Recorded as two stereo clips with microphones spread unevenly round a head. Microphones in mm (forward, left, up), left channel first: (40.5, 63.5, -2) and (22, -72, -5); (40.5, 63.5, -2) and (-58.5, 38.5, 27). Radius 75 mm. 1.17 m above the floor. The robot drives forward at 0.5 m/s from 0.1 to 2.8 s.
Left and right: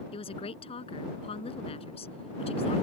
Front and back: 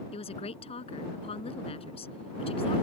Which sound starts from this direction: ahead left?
A woman speaking, at 0.1 s.